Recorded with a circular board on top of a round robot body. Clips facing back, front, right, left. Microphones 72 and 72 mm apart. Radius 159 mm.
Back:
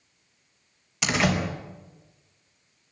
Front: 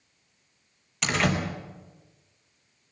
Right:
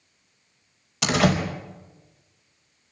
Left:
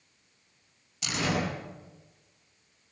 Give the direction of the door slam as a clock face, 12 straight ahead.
3 o'clock.